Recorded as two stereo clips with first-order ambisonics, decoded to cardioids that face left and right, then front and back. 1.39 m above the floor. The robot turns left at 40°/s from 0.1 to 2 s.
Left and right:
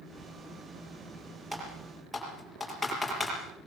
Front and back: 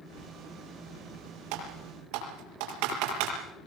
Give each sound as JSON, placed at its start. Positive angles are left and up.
{"t": 1.5, "sound": "typing on a keyboard", "azimuth_deg": -165, "distance_m": 6.0}